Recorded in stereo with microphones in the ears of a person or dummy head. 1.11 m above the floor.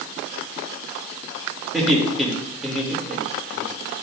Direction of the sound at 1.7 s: Centre (ahead or behind).